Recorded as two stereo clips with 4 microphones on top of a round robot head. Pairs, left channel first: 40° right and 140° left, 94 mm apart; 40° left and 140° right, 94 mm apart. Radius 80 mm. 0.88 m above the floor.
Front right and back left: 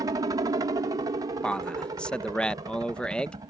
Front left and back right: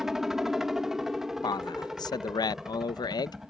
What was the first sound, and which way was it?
A helicopter, 140° left.